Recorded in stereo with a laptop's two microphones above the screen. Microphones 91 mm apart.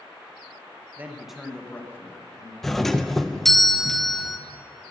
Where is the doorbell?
5° left (ahead or behind), 0.6 m.